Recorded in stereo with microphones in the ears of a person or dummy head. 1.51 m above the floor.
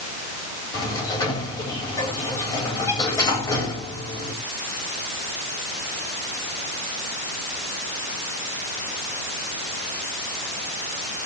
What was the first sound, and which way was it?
A sliding door, 20° left (ahead or behind).